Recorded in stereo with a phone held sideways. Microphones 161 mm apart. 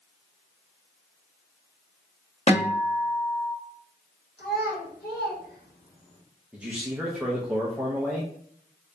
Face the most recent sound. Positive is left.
turn(degrees=-10)  # may be behind; listen again after turning